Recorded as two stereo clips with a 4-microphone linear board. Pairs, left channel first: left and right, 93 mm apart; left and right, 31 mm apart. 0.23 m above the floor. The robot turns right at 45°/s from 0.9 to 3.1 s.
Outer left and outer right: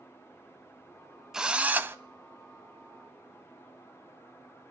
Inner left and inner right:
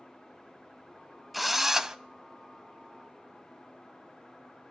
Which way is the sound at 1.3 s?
5° right (ahead or behind).